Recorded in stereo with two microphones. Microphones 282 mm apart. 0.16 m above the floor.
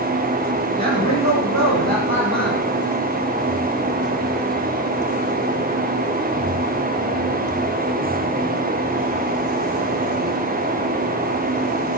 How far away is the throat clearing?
I don't hear throat clearing.